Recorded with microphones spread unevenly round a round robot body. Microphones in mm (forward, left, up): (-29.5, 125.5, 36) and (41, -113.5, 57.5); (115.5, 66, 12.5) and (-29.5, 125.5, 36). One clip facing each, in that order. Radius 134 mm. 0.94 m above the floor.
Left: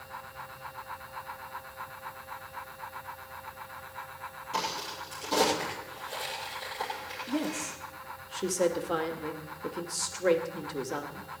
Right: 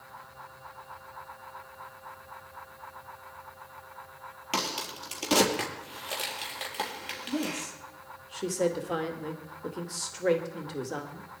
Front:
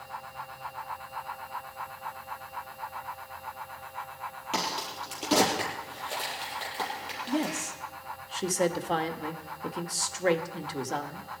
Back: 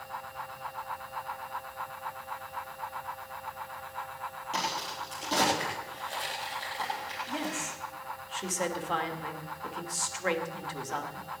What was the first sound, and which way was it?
A crack, 80° right.